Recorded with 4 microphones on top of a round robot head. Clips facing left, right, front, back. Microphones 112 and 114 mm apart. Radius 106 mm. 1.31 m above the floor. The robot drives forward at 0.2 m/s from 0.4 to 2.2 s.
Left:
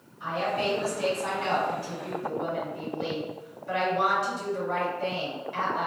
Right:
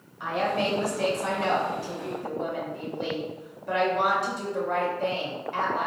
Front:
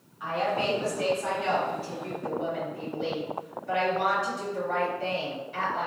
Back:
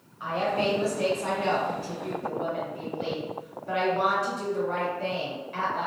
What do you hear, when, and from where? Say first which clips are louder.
0.2 s a woman speaking: right 2 dB, back 1 dB; 115° right, 1.2 m; by 5.9 s 130° right, 1.4 m